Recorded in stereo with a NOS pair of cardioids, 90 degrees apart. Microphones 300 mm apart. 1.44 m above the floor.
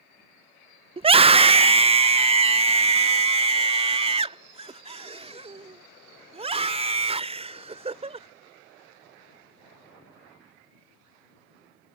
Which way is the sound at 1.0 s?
20° right.